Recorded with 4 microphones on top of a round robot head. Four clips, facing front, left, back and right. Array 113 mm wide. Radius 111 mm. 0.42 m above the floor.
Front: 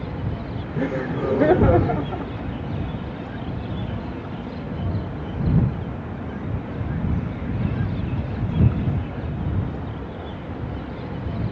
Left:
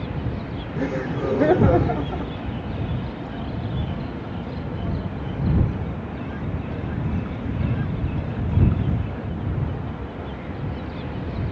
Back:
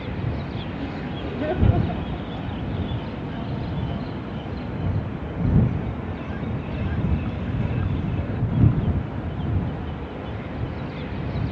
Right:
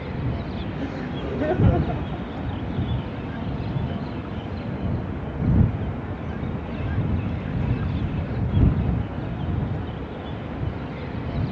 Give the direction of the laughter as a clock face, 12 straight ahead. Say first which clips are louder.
Left 8 dB, front 10 dB; 11 o'clock.